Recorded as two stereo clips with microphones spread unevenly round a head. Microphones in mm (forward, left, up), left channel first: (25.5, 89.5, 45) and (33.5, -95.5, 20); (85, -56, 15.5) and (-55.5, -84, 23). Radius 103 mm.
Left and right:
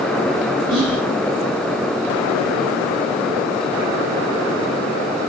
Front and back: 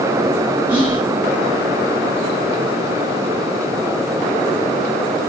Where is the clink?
No clink in this recording.